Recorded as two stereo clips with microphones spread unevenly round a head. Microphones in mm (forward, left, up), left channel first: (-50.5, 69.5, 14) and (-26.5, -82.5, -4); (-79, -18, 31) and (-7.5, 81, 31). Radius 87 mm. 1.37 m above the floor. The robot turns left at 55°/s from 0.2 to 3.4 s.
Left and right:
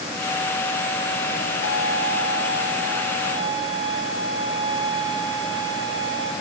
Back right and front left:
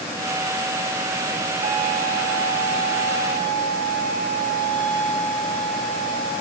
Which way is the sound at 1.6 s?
85° left.